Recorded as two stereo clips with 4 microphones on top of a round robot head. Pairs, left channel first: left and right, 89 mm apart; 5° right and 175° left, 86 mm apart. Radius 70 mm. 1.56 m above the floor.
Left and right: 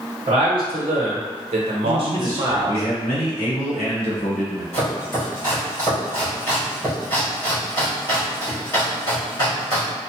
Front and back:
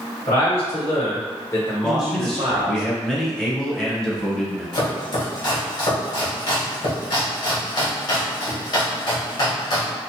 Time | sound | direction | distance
0.3 | a man speaking | 35° right | 1.4 m
1.8 | a man speaking | 75° left | 0.8 m
4.7 | chopping | 20° left | 1.2 m